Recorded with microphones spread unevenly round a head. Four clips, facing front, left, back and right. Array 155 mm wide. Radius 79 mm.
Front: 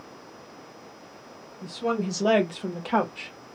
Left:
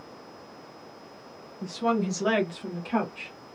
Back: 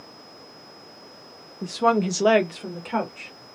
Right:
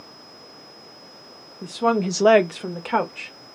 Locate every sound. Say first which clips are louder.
1.6 s a woman speaking: right 5 dB, back 7 dB; 170° right, 0.9 m; by 3.3 s 55° right, 1.7 m